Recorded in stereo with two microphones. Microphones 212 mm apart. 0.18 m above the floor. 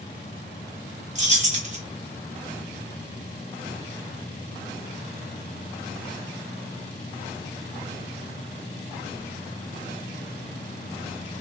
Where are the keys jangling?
35° right (ahead or behind), 0.9 m.